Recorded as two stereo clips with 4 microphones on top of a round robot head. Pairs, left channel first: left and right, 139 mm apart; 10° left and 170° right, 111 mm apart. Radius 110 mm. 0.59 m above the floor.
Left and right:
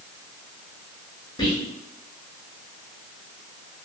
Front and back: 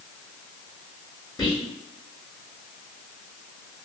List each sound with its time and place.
1.4 s whispering: 45° left, 1.2 m